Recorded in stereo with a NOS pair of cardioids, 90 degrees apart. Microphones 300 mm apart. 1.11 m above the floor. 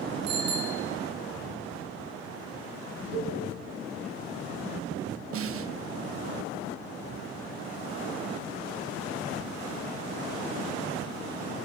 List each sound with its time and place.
0.3 s a bicycle bell: 65° right, 8.5 m
3.1 s a cowbell: 35° right, 8.5 m
5.3 s a snare drum: 50° right, 1.0 m